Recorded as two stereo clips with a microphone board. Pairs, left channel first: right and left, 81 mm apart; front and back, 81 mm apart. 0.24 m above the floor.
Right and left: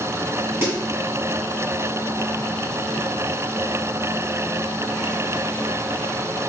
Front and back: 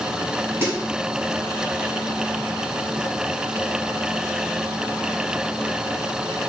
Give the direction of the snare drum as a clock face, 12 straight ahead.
7 o'clock.